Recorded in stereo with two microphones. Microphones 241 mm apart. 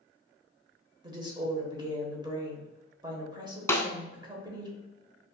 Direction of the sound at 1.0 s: 15° right (ahead or behind).